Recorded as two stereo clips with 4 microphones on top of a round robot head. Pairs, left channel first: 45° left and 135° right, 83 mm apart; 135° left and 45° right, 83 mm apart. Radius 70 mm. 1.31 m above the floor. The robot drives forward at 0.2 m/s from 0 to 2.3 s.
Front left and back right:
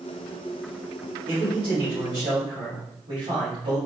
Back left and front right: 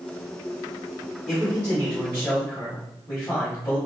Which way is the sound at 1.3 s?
160° right.